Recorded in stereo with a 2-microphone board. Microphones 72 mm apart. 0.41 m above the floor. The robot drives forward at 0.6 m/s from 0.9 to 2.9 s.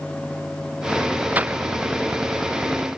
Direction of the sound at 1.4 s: 20° right (ahead or behind).